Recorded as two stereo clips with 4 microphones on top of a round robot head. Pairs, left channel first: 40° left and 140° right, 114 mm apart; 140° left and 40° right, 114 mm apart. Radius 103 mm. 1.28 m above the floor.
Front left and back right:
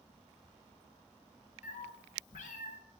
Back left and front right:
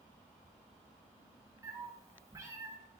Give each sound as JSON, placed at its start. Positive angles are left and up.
{"t": 1.6, "sound": "a cat meowing", "azimuth_deg": 25, "distance_m": 0.7}